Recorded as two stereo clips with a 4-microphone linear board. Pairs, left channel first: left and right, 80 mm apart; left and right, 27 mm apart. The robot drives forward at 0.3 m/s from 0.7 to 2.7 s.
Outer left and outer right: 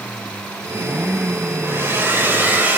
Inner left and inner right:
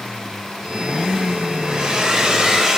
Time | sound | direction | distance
1.6 | a hair dryer | 30° right (ahead or behind) | 0.8 m